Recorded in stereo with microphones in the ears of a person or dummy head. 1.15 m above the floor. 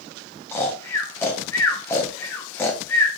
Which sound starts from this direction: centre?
Snoring, at 0.5 s.